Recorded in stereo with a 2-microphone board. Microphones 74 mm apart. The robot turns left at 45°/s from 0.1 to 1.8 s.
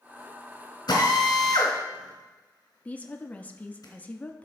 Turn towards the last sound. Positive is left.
turn(degrees=20)  # may be behind; listen again after turning